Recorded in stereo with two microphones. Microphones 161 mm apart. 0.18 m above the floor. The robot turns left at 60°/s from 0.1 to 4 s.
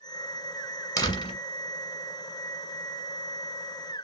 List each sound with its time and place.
1.0 s a door slam: 20° left (ahead or behind), 1.4 m; by 1.4 s 35° left (ahead or behind), 1.4 m